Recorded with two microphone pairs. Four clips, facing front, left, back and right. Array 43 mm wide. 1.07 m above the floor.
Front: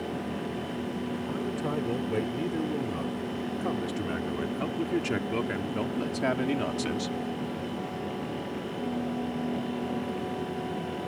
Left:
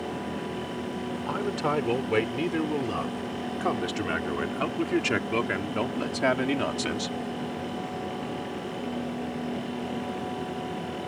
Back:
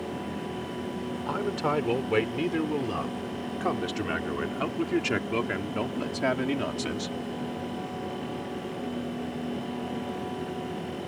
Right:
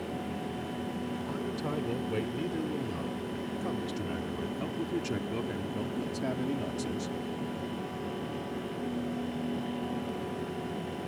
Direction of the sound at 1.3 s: 125° left.